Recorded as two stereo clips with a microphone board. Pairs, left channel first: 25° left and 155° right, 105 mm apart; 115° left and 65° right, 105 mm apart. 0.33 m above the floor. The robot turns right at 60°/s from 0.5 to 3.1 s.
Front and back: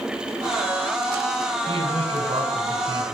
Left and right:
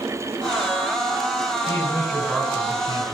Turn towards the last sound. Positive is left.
turn(degrees=-95)